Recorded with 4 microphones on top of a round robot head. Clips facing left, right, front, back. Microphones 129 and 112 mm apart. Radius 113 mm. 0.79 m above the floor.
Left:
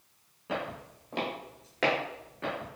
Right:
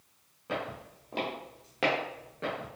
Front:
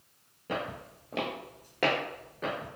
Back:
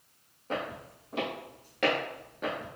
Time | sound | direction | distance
0.5 | footsteps | 5° right | 1.3 m